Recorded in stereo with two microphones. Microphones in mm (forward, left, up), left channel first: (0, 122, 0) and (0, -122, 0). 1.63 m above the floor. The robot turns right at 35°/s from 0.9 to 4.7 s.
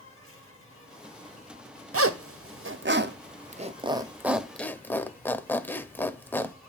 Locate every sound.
0.0 s an insect: 55° left, 6 m; by 6.7 s 170° right, 6 m
1.9 s a zipper: 65° right (ahead or behind), 0.5 m; by 6.5 s 10° left (ahead or behind), 0.5 m